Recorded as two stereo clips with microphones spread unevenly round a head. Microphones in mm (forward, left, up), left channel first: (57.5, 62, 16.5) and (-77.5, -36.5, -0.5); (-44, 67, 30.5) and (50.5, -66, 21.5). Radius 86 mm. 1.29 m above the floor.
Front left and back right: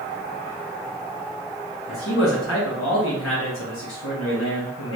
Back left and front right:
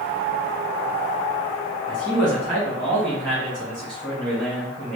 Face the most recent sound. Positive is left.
turn(degrees=30)